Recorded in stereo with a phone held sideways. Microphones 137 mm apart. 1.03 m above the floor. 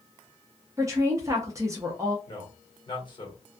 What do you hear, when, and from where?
0.8 s a woman speaking: 25° right (ahead or behind), 0.6 m
2.3 s a man speaking: 35° left (ahead or behind), 1.5 m